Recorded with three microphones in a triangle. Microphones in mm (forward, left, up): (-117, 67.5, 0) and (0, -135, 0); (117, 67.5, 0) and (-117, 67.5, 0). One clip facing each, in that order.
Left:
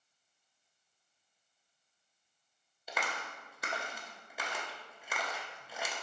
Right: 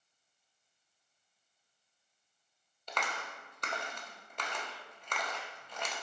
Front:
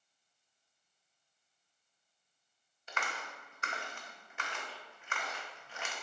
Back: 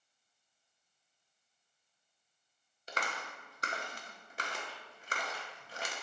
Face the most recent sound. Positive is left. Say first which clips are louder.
# even, back 2 dB
turn(degrees=-160)